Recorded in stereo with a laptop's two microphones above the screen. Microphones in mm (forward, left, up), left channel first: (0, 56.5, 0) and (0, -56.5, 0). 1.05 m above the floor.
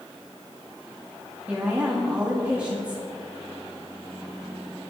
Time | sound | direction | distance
1.5 | a woman speaking | 10° right (ahead or behind) | 2.5 m